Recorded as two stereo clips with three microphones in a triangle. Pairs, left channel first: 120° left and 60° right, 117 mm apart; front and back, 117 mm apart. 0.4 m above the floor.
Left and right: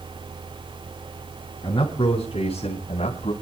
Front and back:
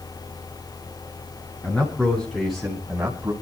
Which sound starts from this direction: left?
A man speaking, at 1.6 s.